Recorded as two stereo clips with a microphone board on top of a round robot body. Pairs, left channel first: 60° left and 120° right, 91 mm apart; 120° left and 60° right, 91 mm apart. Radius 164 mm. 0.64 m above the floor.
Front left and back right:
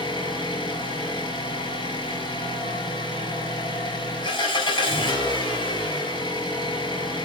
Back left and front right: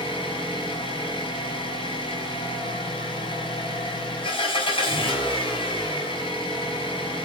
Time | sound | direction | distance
0.0 | an engine running | 95° left | 5 m